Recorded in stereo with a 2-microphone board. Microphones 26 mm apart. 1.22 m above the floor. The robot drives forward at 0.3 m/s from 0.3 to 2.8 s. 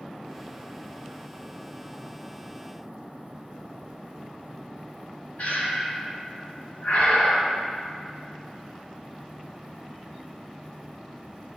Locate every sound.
5.4 s breathing: 55° left (ahead or behind), 2 m